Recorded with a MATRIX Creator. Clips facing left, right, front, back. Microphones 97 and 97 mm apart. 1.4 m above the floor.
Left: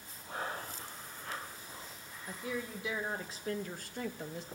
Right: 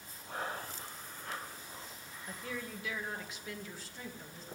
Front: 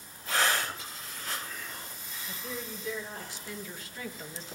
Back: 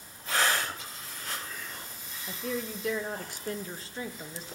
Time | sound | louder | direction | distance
2.3 | a woman speaking | left 3 dB, back 6 dB | 170° left | 1.2 m